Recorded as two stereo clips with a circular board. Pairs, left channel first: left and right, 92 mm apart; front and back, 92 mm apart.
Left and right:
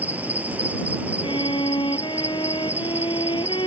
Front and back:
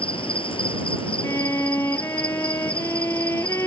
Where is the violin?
60° left.